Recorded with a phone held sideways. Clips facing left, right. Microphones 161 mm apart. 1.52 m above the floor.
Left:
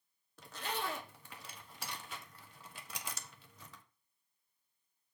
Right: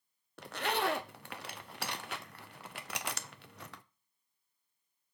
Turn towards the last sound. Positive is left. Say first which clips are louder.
# right 7 dB
turn(degrees=-70)  # may be behind; listen again after turning